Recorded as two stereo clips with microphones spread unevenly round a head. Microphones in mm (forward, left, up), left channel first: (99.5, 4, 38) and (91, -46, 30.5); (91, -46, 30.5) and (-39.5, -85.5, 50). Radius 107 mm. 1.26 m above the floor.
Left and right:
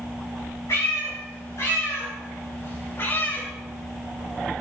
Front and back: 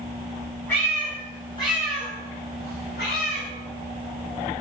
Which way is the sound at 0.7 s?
100° left.